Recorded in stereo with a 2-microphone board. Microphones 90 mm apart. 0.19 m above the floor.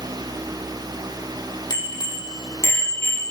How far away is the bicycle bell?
About 5 m.